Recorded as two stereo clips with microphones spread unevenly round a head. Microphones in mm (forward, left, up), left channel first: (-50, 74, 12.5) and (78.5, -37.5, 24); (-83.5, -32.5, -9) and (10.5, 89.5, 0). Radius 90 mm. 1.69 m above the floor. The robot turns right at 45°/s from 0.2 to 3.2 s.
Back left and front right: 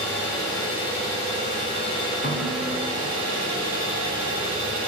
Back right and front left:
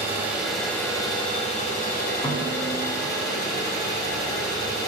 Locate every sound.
0.0 s an engine running: 125° left, 4 m; by 4.9 s 100° right, 4 m
2.2 s a snare drum: straight behind, 2 m; by 2.8 s 155° right, 2 m